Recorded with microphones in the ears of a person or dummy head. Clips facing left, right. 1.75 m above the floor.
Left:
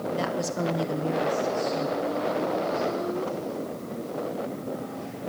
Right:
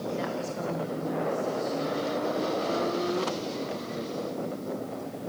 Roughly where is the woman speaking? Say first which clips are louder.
Left 4 dB; left.